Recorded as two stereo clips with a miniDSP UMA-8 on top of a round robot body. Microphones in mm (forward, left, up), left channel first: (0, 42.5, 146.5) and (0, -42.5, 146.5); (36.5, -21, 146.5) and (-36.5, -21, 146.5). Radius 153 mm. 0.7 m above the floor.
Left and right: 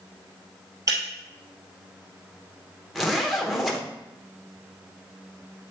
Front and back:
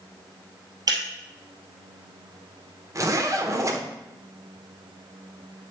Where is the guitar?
No guitar in this recording.